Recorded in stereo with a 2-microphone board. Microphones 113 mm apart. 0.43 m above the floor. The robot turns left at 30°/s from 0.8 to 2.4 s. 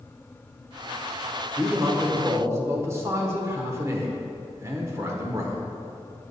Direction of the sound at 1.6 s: 15° right (ahead or behind).